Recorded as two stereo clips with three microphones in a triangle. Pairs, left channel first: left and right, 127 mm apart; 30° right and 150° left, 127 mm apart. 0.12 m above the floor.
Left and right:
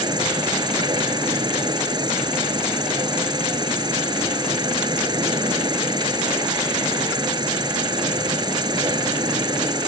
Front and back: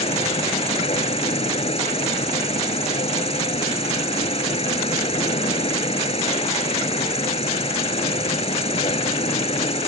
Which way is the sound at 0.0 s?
40° right.